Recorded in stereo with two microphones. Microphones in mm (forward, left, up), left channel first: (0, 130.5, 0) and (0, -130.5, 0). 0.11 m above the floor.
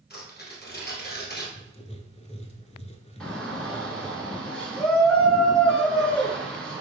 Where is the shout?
5° left (ahead or behind), 1.1 m.